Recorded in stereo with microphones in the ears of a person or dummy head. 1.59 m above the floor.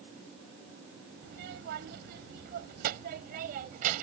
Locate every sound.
1.2 s a child speaking: 70° right (ahead or behind); by 4.0 s 50° right (ahead or behind)